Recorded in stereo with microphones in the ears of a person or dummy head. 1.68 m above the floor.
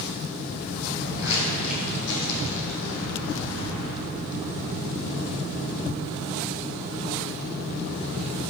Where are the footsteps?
60° left (ahead or behind), 4.5 m; by 4.0 s 65° left (ahead or behind), 4.5 m.